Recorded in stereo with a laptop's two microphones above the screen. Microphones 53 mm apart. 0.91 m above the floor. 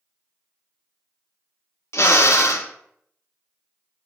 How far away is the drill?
About 0.7 m.